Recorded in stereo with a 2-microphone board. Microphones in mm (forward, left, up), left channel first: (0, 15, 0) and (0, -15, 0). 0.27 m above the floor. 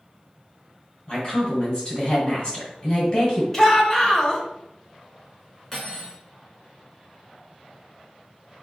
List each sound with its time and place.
1.1 s a woman speaking: 30° left (ahead or behind), 1.8 m
3.5 s a shout: 20° left (ahead or behind), 0.9 m
5.7 s cutlery clinking: 15° left (ahead or behind), 1.8 m